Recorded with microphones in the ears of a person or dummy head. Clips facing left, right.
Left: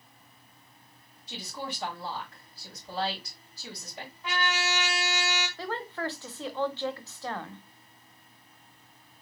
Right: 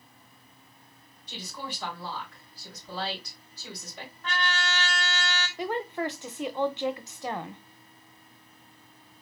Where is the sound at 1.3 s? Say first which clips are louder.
Left 1 dB; 5° left (ahead or behind), 3.5 m.